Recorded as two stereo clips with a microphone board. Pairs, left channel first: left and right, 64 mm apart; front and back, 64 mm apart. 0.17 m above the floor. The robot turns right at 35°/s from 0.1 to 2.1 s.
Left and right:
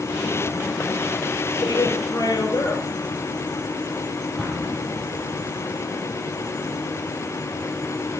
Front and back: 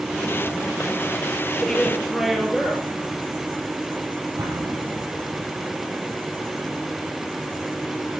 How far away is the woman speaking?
About 3 m.